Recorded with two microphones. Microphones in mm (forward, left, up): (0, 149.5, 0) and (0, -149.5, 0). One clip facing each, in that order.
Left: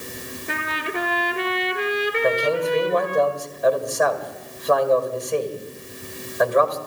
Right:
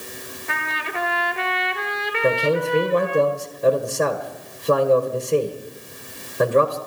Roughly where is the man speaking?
Right.